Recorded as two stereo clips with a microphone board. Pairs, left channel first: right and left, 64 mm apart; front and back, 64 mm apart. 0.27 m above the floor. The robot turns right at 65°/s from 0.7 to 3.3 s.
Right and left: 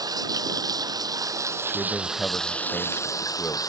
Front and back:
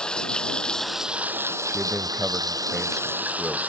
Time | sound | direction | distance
0.0 | running water | 80° left | ?
1.7 | a man speaking | 165° right | ?